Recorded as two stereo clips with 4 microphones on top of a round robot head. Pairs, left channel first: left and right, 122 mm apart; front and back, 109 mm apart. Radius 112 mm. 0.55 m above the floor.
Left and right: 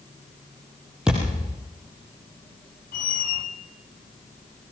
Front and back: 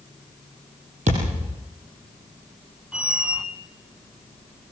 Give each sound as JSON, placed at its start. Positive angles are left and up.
{"t": 1.1, "sound": "a thud", "azimuth_deg": -175, "distance_m": 5.0}
{"t": 2.9, "sound": "a squeak", "azimuth_deg": 100, "distance_m": 1.3}